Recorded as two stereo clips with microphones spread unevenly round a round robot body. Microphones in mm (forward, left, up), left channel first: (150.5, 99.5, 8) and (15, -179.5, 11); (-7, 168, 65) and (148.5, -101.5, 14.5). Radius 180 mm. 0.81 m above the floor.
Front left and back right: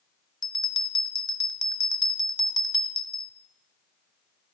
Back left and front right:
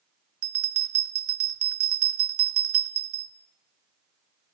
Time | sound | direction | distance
0.4 | a bell | 15° right | 0.8 m